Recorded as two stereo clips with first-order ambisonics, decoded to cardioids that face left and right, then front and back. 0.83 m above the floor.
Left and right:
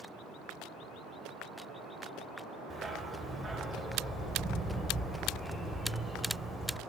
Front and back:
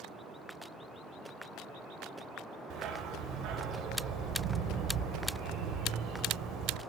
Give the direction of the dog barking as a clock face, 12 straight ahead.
6 o'clock.